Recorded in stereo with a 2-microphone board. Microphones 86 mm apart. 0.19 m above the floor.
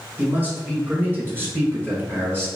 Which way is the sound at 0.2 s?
20° right (ahead or behind).